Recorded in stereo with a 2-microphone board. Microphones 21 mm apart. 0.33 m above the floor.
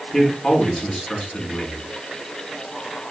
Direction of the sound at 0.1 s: 40° left (ahead or behind).